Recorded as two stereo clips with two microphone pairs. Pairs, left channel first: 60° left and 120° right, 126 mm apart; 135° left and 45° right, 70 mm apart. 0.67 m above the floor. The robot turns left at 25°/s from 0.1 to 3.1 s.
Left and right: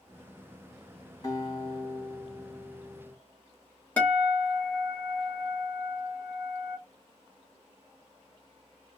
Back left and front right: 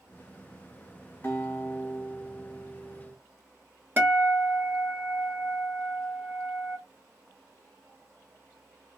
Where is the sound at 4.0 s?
10° right, 1.3 m.